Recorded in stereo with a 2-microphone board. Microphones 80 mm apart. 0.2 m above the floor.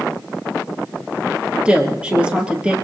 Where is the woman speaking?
15° right (ahead or behind), 4 m.